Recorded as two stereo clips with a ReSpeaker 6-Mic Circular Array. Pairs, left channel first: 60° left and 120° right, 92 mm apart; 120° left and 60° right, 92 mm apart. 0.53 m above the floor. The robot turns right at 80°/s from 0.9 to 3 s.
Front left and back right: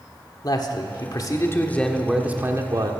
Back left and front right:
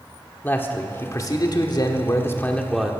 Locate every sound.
0.4 s a man speaking: 60° left, 1.3 m; by 2.9 s 140° right, 1.3 m